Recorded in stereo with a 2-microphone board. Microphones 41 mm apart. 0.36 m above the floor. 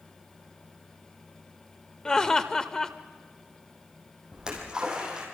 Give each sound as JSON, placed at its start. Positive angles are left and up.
{"t": 2.0, "sound": "laughter", "side_deg": 20, "distance_m": 1.2}
{"t": 4.3, "sound": "a splash", "side_deg": -20, "distance_m": 5.5}